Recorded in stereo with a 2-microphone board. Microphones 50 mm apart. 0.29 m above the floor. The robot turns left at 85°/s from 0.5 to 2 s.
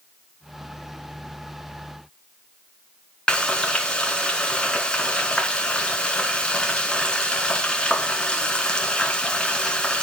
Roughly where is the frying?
Centre.